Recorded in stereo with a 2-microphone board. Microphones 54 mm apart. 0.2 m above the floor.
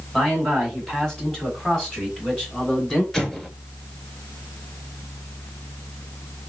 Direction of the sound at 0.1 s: 5° left (ahead or behind).